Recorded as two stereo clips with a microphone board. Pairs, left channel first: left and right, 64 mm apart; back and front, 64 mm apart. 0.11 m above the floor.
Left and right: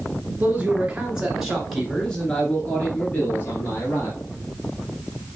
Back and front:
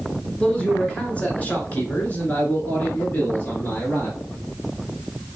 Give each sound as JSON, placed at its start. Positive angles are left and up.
{"t": 0.4, "sound": "a man speaking", "azimuth_deg": -120, "distance_m": 1.6}